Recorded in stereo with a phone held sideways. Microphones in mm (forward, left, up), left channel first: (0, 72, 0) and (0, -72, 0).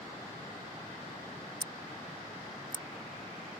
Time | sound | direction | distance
1.6 | scissors | 35° right (ahead or behind) | ?